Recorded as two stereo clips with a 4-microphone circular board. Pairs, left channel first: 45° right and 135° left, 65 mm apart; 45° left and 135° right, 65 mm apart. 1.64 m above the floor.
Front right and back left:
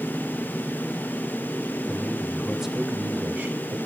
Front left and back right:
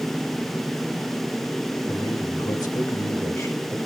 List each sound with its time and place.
1.9 s a man speaking: 40° left, 2.5 m; by 3.9 s 105° left, 1.5 m